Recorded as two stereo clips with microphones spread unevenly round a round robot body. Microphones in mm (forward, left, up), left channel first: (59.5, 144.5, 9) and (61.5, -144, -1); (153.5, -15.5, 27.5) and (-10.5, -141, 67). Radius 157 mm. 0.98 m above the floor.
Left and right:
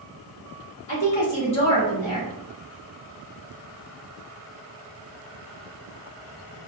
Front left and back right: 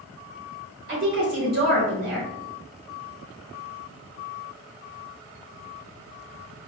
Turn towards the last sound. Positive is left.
turn(degrees=160)